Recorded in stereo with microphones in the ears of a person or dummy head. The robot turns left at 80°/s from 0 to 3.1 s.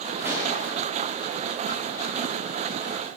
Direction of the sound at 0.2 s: 10° right (ahead or behind).